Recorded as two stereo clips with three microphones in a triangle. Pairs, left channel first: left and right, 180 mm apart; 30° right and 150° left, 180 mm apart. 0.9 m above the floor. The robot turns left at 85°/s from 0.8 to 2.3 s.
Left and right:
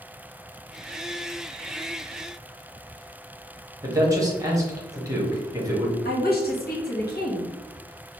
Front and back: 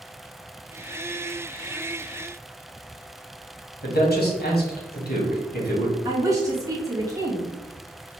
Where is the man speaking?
20° right, 1.2 m.